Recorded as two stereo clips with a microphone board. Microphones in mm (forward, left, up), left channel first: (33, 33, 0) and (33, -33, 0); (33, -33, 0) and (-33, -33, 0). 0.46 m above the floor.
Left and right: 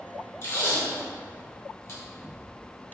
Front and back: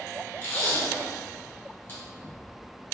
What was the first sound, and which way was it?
Tape being pulled, 55° left.